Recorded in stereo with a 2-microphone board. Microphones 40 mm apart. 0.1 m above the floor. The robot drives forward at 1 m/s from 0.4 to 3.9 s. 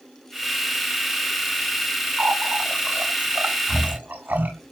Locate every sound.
2.2 s a running tap: 45° right (ahead or behind), 9 m; by 4.5 s 50° right (ahead or behind), 7.5 m